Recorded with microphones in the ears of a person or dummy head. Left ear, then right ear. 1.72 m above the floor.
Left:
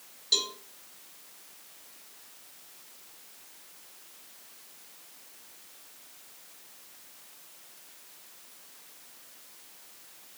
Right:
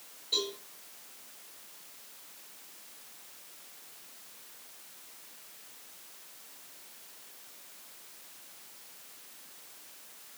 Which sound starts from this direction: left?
A cowbell, at 0.3 s.